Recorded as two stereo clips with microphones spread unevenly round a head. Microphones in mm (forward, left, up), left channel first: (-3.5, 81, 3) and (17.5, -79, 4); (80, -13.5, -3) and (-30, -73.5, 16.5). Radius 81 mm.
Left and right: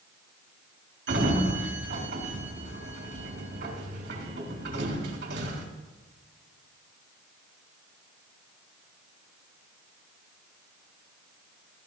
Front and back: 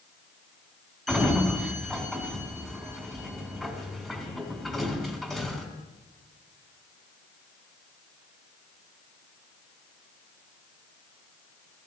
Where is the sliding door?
65° right, 2.5 m.